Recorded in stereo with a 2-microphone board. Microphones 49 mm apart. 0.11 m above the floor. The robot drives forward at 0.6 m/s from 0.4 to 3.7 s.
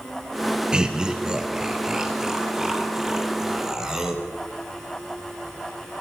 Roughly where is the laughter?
Centre.